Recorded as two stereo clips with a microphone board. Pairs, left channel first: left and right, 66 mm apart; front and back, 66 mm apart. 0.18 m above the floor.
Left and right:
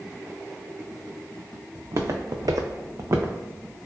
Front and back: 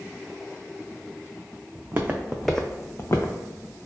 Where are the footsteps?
125° right, 0.6 m; by 3.8 s 25° right, 0.9 m.